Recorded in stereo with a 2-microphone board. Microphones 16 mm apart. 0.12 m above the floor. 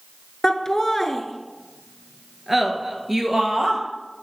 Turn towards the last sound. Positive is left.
turn(degrees=-30)  # may be behind; listen again after turning